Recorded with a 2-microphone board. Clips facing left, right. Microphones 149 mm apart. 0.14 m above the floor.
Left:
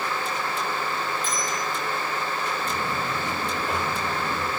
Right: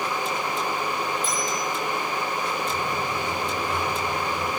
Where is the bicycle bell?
10° right (ahead or behind), 10 m.